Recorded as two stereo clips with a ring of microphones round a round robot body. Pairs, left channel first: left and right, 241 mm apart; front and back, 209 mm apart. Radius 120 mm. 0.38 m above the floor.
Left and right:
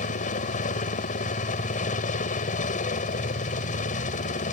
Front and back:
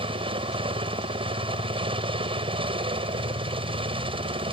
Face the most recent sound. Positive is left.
turn(degrees=130)